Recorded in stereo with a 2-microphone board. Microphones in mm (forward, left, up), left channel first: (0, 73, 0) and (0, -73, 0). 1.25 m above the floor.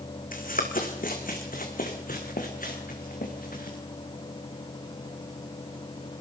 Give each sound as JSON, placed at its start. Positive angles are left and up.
{"t": 0.3, "sound": "running footsteps", "side_deg": 70, "distance_m": 4.0}